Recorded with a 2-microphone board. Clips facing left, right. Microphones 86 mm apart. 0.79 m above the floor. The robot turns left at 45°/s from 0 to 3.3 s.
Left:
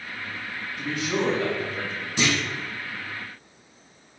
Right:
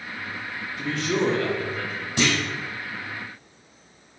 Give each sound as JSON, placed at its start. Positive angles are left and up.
{"t": 0.8, "sound": "a man speaking", "azimuth_deg": 170, "distance_m": 1.1}
{"t": 2.2, "sound": "a clunk", "side_deg": -65, "distance_m": 1.4}